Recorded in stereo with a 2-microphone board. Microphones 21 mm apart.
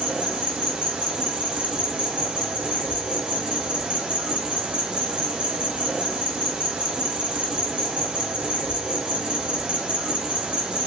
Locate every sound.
0.0 s an insect: 55° right (ahead or behind), 0.8 m